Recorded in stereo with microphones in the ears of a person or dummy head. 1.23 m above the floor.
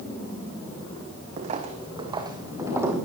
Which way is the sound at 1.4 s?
40° right (ahead or behind).